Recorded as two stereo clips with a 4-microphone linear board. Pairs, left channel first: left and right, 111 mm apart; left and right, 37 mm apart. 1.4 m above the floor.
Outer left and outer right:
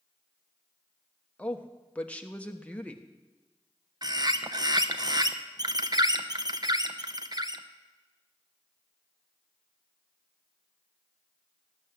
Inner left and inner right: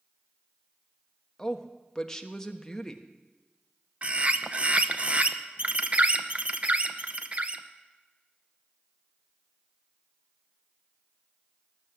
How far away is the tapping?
I don't hear tapping.